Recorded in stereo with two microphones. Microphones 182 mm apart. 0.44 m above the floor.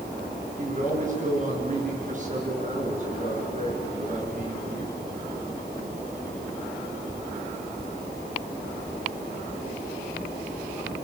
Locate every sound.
0.6 s a man speaking: 45° right (ahead or behind), 6 m